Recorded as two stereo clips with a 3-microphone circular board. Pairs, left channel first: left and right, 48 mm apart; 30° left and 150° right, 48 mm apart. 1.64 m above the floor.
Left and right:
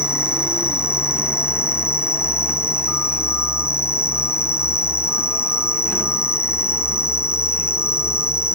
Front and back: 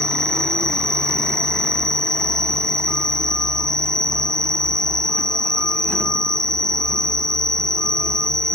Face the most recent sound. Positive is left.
turn(degrees=105)